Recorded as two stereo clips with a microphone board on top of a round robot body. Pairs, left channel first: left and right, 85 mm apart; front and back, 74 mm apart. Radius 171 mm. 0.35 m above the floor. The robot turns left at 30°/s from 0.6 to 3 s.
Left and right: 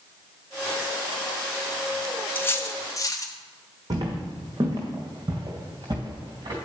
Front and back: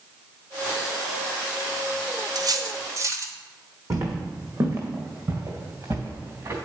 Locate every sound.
2.4 s cutlery clinking: 155° left, 1.1 m; by 3.3 s 135° left, 1.1 m
3.9 s footsteps: 135° right, 1.8 m